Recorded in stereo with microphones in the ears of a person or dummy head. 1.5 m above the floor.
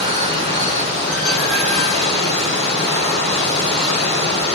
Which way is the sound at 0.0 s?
30° right (ahead or behind).